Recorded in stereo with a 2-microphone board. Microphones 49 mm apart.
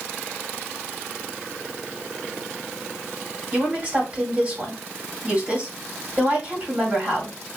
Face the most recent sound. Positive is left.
turn(degrees=-30)  # may be behind; listen again after turning